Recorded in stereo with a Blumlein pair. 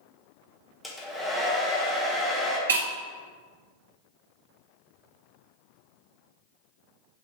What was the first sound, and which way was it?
A hair dryer, 10° left.